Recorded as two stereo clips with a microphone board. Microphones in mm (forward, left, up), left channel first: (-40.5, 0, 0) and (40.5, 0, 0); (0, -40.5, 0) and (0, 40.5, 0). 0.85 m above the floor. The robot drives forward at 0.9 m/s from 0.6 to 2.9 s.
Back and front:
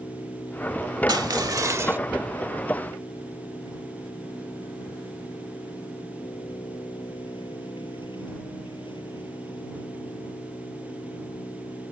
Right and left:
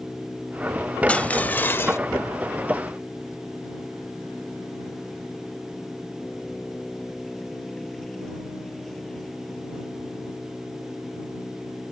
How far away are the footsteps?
I don't hear footsteps.